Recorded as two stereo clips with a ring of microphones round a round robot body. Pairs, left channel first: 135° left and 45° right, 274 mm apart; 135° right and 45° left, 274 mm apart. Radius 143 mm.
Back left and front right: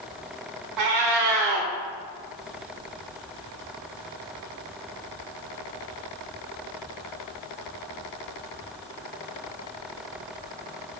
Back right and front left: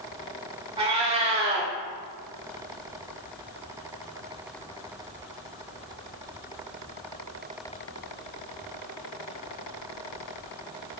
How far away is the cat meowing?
About 1.0 m.